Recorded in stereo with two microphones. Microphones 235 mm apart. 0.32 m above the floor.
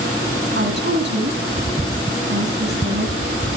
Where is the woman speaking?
55° right (ahead or behind), 2.5 m.